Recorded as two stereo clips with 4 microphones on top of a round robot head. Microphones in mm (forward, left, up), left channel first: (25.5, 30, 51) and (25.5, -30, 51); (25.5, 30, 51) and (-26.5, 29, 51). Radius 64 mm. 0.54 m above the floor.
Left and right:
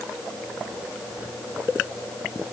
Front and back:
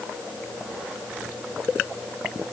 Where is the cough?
No cough in this recording.